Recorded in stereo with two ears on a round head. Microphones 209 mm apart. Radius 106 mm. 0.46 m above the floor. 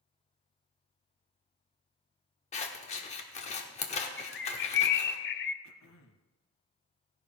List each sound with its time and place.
2.5 s scissors: 30° left (ahead or behind), 1.1 m
4.2 s a bird: 50° left (ahead or behind), 0.6 m
5.6 s throat clearing: 65° left (ahead or behind), 0.9 m